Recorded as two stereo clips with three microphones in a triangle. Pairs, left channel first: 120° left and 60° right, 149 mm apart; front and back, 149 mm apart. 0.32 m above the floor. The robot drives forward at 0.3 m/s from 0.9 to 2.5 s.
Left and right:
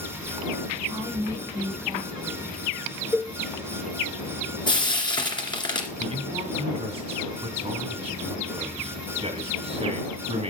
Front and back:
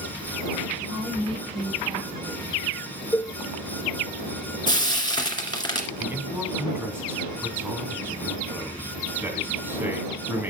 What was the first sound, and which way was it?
A woman speaking, 130° right.